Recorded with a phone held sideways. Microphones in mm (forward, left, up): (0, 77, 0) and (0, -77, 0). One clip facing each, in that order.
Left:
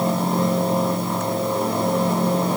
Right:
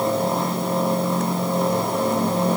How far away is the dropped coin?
No dropped coin in this recording.